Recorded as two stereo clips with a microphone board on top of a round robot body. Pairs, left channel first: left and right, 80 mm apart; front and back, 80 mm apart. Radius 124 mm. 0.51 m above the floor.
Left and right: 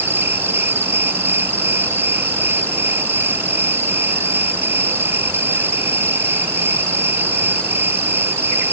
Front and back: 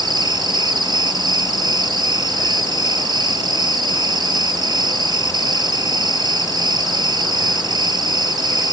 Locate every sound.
0.0 s an insect: 150° right